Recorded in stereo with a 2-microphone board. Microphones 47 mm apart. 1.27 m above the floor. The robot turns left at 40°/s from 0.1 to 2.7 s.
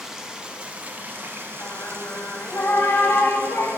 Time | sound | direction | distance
0.0 | running water | 10° right | 0.7 m
1.6 | singing | 115° left | 1.0 m